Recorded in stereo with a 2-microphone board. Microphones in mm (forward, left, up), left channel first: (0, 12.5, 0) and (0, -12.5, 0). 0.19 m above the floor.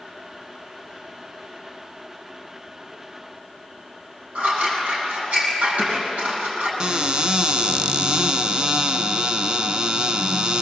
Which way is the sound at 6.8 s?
35° right (ahead or behind).